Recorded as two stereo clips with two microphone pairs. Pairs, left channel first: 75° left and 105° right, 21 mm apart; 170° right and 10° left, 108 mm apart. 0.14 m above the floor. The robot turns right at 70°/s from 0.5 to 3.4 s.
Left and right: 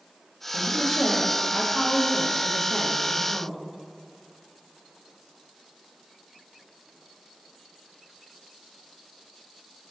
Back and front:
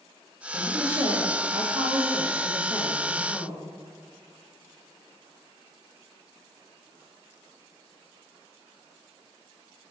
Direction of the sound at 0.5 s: 65° right.